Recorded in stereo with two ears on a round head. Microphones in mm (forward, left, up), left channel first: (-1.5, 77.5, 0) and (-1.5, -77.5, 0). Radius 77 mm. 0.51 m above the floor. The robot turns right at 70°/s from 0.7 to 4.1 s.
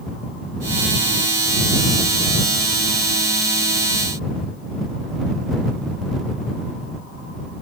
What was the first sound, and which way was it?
Only background noise.